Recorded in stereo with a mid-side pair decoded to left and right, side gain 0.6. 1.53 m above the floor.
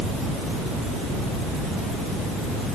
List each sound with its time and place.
Only background noise.